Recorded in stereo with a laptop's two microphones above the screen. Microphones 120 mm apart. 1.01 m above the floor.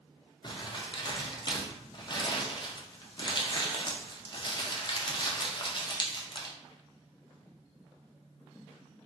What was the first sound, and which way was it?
Crumpling, 40° left (ahead or behind).